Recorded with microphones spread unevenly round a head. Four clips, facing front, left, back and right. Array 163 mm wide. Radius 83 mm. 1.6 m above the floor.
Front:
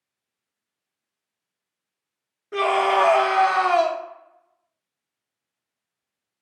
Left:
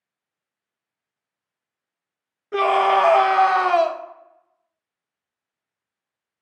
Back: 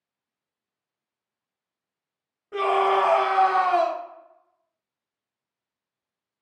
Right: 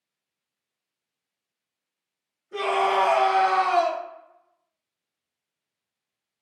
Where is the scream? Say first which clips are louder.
Left 5 dB, front 1 dB; 65° left, 0.6 m.